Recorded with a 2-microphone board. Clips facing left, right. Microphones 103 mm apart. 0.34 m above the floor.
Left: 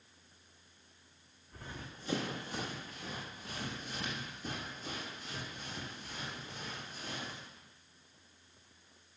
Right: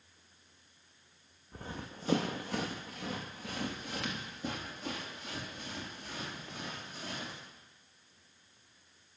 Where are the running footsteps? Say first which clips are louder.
Right 4 dB; 35° right (ahead or behind), 1.1 m; by 7.4 s 70° right (ahead or behind), 5 m.